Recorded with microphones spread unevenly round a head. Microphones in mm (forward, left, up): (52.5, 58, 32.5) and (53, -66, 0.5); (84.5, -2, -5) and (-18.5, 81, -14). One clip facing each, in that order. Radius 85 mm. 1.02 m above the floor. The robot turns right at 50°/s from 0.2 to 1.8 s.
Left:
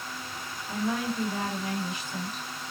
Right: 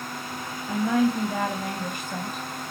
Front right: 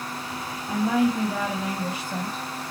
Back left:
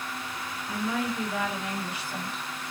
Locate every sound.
0.7 s a woman speaking: 105° right, 1.8 m; by 2.4 s 50° right, 1.8 m